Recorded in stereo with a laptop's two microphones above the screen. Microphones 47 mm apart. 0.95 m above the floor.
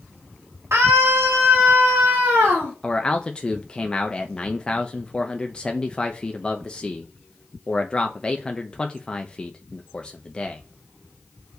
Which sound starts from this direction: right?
A scream, at 0.7 s.